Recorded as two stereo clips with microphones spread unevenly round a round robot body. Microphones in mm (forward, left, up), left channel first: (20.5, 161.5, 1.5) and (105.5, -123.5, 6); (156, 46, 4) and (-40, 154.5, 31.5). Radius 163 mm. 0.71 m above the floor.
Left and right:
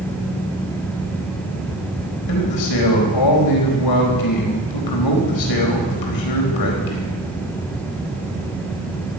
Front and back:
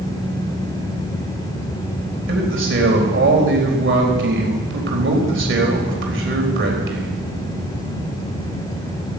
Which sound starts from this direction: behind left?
A man speaking, at 2.3 s.